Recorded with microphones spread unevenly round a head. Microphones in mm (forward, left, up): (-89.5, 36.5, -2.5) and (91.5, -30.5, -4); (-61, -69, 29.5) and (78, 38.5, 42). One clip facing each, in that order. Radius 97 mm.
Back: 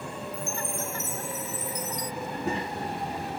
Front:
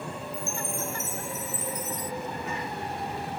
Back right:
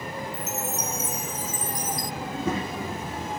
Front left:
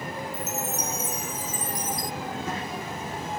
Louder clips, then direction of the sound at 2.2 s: Back 3 dB, back right 4 dB; 140° right.